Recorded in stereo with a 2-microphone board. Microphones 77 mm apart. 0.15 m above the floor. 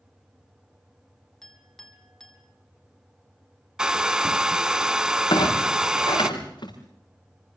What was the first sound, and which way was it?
A clink, 5° left (ahead or behind).